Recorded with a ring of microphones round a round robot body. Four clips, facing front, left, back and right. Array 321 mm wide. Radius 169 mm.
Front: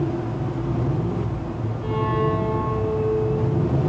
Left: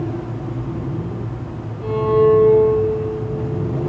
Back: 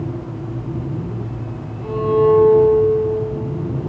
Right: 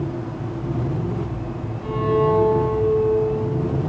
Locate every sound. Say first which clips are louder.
1.8 s a violin: left 5 dB, back 8 dB; 65° left, 3.5 m